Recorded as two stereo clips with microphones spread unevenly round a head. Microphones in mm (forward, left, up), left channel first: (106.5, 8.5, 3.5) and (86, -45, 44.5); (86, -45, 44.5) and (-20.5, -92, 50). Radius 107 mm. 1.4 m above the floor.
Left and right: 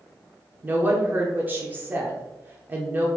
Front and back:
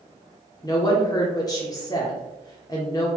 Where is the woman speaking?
35° right, 0.7 m.